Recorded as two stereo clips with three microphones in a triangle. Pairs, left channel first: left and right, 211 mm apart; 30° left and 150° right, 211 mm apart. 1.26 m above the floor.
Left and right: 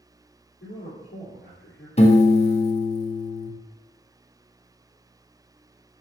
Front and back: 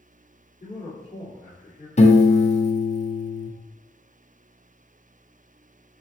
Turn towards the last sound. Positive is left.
turn(degrees=55)